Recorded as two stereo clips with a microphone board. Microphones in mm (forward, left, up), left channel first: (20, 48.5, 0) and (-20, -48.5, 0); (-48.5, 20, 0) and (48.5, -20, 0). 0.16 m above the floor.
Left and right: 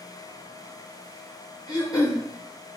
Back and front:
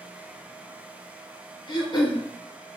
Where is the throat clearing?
115° left, 3.5 m.